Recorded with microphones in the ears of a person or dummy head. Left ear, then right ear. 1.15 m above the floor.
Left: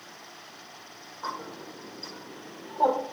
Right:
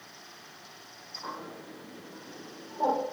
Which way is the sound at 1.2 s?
35° left (ahead or behind).